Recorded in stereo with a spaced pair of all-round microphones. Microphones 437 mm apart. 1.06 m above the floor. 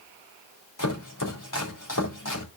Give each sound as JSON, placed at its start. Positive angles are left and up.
{"t": 0.8, "sound": "chopping", "side_deg": 45, "distance_m": 2.5}